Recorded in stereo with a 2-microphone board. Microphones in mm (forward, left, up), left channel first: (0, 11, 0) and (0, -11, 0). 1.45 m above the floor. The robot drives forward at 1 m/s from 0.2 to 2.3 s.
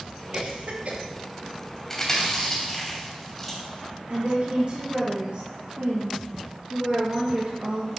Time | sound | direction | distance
0.3 | a cough | 60° right (ahead or behind) | 2 m
1.9 | chewing | 20° left (ahead or behind) | 2.5 m
4.1 | a woman speaking | 75° right (ahead or behind) | 1.9 m